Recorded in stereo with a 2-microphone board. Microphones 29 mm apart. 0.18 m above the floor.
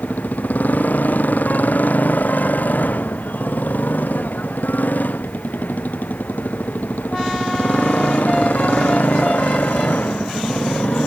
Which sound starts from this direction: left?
A motorcycle, at 0.0 s.